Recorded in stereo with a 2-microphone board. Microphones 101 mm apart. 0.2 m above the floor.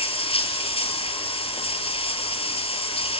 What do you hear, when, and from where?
0.0 s running water: 70° left (ahead or behind), 1.5 m